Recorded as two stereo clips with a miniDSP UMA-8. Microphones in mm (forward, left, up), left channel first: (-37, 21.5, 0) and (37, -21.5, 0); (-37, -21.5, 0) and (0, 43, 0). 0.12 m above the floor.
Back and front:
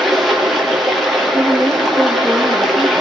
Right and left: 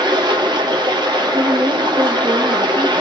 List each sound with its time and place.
0.0 s running water: 65° left, 5 m
1.3 s a woman speaking: 75° left, 3.5 m